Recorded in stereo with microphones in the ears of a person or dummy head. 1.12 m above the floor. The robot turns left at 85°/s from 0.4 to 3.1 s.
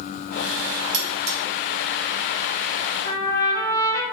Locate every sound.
0.9 s cutlery clinking: 65° right (ahead or behind), 0.6 m; by 1.4 s 50° right (ahead or behind), 0.6 m
3.0 s a trumpet: 30° left (ahead or behind), 0.7 m